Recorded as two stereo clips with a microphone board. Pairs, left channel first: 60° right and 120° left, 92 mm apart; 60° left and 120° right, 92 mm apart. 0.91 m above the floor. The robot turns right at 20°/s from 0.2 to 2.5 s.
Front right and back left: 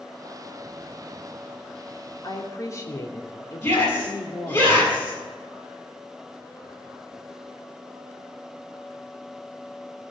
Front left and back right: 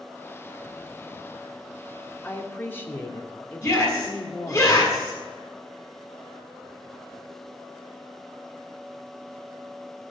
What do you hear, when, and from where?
2.2 s a woman speaking: 10° right, 2.5 m; by 4.6 s 5° right, 2.5 m
3.6 s a shout: 5° right, 7 m